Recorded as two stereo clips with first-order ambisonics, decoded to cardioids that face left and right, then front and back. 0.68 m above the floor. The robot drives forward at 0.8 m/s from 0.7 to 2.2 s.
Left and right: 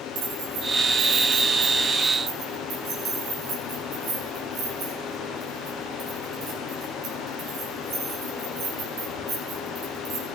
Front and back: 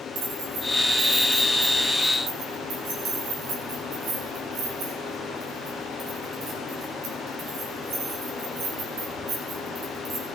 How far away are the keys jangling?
About 3 m.